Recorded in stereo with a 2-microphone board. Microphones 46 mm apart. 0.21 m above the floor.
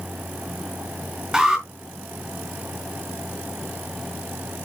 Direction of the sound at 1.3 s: 10° right (ahead or behind).